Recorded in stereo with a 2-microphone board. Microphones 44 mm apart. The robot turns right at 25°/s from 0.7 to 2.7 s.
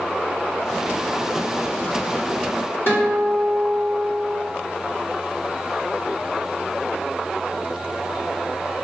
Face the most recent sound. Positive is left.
turn(degrees=50)  # may be behind; listen again after turning